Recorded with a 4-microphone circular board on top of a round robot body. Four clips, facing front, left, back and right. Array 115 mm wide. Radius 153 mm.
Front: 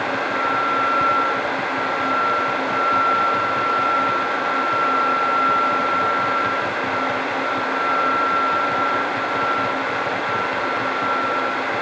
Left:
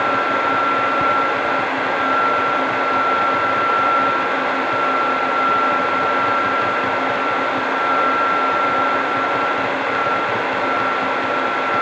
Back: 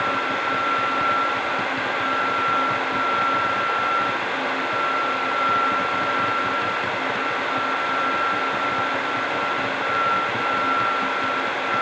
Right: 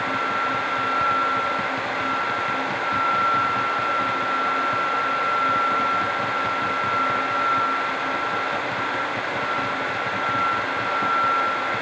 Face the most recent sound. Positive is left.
No sound to turn to.